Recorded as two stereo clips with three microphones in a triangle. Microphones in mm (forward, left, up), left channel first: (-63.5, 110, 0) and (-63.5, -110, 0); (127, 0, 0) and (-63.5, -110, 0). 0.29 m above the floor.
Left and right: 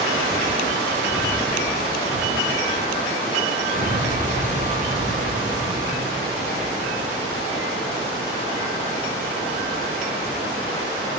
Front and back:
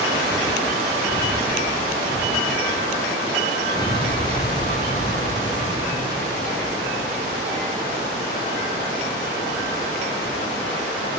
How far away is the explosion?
About 6 m.